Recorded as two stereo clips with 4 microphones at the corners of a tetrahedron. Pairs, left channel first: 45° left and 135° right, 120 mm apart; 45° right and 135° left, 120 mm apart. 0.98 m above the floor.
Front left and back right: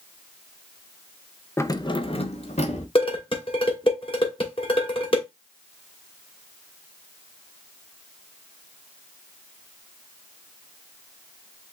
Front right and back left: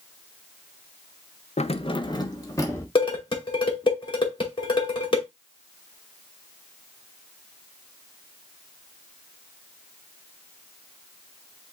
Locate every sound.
1.6 s keys jangling: 25° right, 0.5 m; by 2.9 s 20° left, 1.5 m
3.0 s dishes clattering: 5° left, 2.5 m